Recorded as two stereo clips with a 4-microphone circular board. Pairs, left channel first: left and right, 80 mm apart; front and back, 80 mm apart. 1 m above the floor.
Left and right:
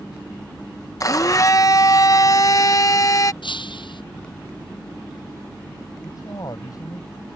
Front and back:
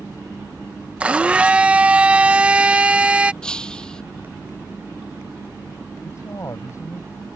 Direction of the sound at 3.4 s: 80° left.